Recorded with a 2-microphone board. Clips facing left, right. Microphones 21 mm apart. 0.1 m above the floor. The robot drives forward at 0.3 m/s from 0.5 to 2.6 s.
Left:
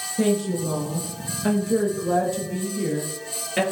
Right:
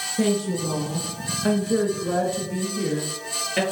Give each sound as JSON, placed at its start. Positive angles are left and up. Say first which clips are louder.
{"t": 0.2, "sound": "a woman speaking", "louder": "left 1 dB", "side_deg": -5, "distance_m": 1.1}